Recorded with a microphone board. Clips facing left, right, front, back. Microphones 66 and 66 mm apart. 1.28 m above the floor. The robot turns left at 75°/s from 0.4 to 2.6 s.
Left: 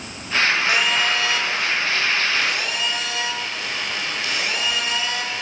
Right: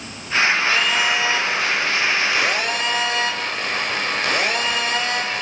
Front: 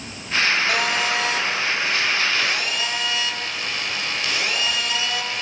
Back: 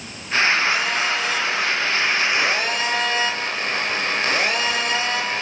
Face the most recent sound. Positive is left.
turn(degrees=-130)